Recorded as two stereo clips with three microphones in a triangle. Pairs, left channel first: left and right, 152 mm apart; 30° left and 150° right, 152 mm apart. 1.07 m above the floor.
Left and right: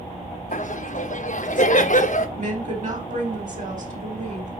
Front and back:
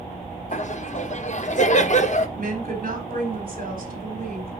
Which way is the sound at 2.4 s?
125° right.